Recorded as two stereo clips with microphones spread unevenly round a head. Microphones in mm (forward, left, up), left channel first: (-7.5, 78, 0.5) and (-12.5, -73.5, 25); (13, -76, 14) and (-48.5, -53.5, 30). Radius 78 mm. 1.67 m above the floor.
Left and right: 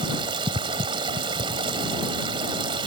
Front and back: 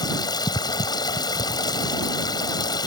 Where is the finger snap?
I don't hear a finger snap.